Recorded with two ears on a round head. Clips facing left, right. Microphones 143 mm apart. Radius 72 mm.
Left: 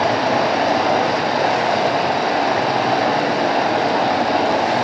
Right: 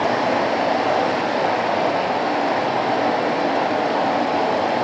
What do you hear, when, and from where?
0.0 s running water: 65° left (ahead or behind), 1.7 m